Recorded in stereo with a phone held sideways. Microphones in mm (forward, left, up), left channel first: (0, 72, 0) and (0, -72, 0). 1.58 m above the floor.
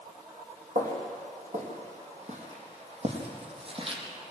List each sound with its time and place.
0.8 s footsteps: 65° right (ahead or behind), 4.5 m; by 4.3 s 35° right (ahead or behind), 4 m